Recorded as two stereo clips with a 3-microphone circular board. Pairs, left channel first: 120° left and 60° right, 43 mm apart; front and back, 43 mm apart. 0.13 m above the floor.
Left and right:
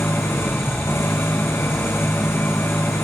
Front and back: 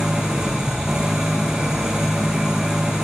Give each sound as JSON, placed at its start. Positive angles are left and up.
{"t": 0.0, "sound": "an engine running", "azimuth_deg": 110, "distance_m": 3.0}